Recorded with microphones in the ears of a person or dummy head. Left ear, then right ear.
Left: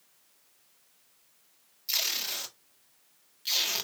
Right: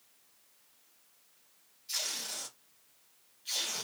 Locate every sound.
1.9 s tape being pulled: 35° left (ahead or behind), 0.7 m